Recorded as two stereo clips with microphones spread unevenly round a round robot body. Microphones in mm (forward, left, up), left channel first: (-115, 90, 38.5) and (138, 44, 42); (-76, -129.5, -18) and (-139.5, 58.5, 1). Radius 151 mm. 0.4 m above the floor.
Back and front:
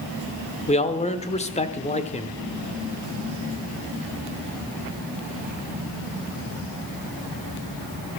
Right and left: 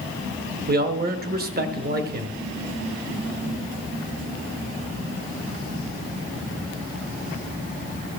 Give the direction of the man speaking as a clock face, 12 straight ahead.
8 o'clock.